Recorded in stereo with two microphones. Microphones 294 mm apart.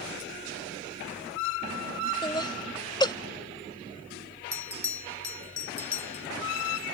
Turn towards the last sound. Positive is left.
turn(degrees=45)  # may be behind; listen again after turning